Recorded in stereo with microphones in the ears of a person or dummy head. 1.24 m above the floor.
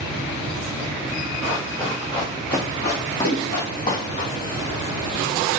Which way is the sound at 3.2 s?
55° left (ahead or behind).